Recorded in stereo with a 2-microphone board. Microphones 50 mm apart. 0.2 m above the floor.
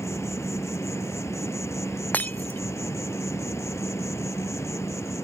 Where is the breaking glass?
35° left (ahead or behind).